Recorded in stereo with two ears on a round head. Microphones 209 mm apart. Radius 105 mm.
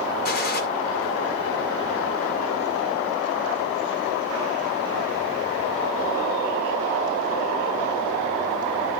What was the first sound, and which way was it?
A gunshot, 45° left (ahead or behind).